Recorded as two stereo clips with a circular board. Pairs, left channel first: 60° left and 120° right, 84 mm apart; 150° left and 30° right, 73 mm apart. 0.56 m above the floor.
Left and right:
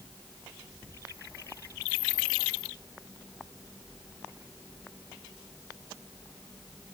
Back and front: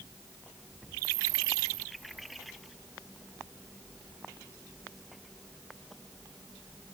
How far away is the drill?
No drill in this recording.